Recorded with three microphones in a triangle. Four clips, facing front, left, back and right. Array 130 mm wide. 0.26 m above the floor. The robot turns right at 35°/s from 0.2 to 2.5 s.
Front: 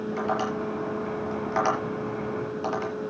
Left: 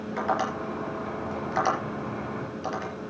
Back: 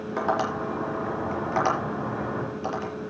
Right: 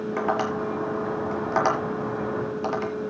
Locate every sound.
0.2 s tapping: 140° right, 5.5 m; by 2.9 s 60° right, 5.5 m